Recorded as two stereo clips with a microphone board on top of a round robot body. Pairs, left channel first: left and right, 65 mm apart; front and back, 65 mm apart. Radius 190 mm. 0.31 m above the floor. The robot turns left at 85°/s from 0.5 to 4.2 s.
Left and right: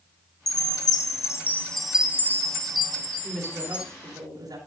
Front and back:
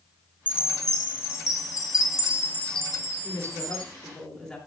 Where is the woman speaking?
5° right, 9.5 m; by 4.6 s 85° right, 9.5 m.